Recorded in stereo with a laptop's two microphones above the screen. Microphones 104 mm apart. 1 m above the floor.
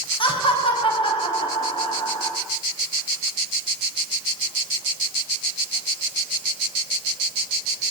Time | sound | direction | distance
0.2 | laughter | 60° left (ahead or behind) | 6 m